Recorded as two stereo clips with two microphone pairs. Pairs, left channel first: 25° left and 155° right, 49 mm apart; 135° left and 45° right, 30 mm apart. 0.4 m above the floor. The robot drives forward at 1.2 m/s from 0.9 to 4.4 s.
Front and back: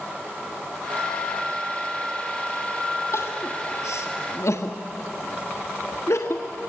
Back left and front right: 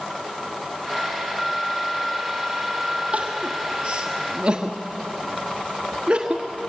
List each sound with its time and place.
3.1 s crying: 5° left, 3 m; by 6.7 s 15° left, 1.5 m